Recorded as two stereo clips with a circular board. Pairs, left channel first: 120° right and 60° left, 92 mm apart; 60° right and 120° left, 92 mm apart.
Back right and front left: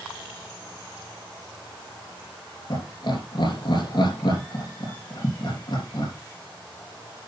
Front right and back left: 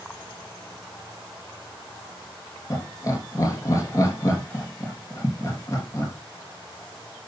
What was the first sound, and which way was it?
Laughter, 110° right.